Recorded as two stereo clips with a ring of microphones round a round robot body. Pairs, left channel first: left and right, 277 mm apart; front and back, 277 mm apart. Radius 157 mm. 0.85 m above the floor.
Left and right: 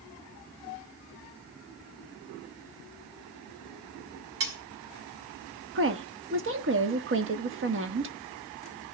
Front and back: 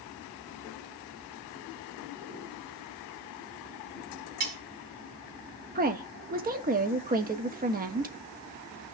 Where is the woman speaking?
125° right, 1.3 m.